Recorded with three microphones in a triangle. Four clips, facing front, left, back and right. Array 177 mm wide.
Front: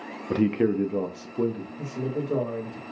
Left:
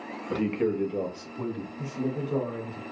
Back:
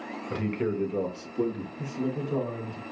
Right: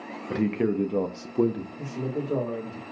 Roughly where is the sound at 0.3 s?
Ahead.